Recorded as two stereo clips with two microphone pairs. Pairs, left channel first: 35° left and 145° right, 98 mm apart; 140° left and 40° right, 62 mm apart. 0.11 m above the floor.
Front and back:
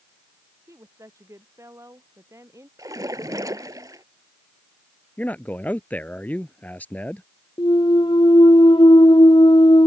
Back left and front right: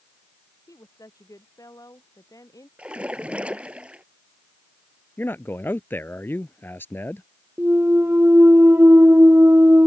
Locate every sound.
0.7 s a woman speaking: 155° left
2.8 s a splash: 105° right
5.2 s a man speaking: 100° left
7.6 s a clunk: 5° left